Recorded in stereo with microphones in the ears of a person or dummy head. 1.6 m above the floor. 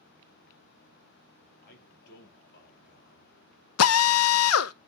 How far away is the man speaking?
About 3 m.